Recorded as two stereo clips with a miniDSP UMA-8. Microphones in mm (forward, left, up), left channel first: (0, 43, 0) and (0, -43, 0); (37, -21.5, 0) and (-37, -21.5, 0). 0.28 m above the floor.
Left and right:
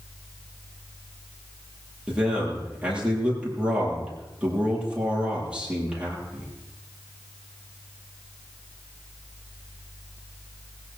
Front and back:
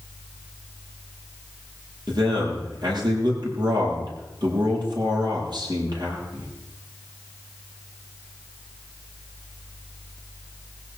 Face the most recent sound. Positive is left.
turn(degrees=-170)